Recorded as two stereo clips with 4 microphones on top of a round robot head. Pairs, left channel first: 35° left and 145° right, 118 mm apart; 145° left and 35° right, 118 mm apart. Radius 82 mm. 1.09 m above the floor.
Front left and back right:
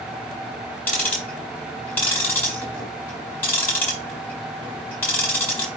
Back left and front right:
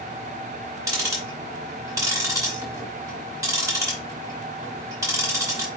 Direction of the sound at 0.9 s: 20° right.